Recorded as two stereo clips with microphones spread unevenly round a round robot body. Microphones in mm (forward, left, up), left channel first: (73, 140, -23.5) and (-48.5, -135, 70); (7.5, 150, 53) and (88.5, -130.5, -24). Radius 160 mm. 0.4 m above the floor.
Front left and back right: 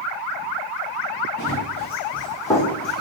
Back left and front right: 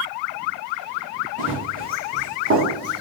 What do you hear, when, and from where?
1.4 s running footsteps: 5° right, 1.7 m; by 3.0 s 35° right, 1.0 m